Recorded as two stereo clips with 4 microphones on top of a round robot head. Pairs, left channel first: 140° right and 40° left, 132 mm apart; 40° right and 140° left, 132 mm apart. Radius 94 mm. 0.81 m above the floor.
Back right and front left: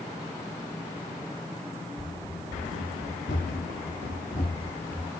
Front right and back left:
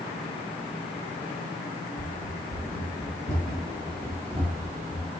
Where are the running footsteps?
70° right, 1.2 m; by 5.1 s 175° left, 1.2 m.